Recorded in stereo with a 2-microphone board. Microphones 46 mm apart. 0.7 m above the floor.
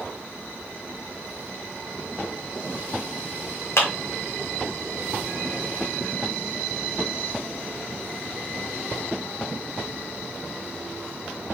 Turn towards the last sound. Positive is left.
turn(degrees=75)  # may be behind; listen again after turning